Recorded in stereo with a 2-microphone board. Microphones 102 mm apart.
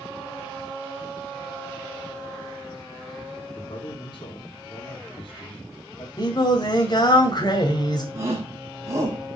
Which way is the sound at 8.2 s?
30° right (ahead or behind).